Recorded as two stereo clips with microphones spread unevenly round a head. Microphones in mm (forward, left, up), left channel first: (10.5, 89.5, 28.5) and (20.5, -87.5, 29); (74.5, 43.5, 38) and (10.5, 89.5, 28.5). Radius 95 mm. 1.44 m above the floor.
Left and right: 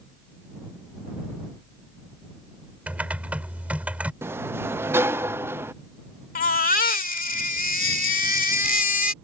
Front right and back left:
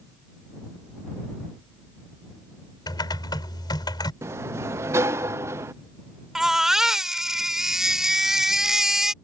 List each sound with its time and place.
2.9 s typing on a keyboard: 5° right
4.2 s a sliding door: 160° right
6.3 s a baby crying: 60° left